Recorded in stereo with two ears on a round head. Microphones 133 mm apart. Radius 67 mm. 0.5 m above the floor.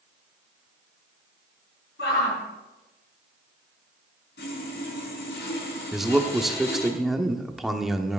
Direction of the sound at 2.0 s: 80° left.